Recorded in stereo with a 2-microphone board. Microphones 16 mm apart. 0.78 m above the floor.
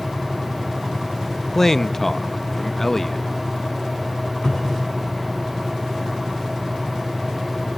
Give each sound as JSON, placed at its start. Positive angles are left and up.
{"t": 1.6, "sound": "a man speaking", "side_deg": 15, "distance_m": 0.5}
{"t": 4.4, "sound": "a cupboard door", "side_deg": 55, "distance_m": 7.0}